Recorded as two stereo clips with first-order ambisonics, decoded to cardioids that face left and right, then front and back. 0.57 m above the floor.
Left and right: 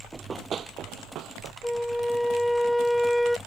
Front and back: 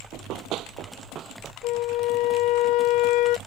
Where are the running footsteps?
170° right; by 1.5 s 120° right.